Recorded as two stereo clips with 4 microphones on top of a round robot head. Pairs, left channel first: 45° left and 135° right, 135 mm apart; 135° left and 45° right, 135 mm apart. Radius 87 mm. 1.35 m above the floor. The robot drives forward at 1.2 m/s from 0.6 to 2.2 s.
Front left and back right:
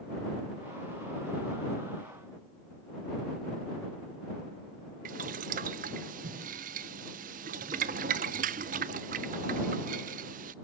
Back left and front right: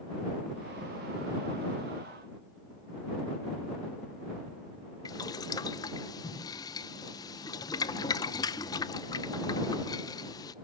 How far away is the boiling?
About 0.6 m.